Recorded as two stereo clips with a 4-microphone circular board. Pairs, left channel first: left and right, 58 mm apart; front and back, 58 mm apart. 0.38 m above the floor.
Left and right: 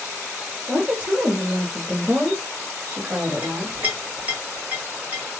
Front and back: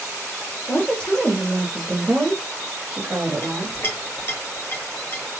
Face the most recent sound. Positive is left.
turn(degrees=-30)